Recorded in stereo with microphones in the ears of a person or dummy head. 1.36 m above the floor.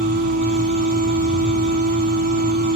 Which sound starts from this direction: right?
A machine running, at 0.0 s.